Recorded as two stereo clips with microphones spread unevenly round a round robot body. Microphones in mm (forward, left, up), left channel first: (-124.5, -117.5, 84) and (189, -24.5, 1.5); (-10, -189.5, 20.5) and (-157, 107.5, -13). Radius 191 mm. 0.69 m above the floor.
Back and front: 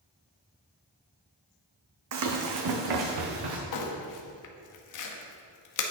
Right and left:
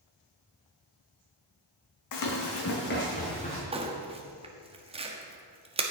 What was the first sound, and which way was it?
Running footsteps, 30° right.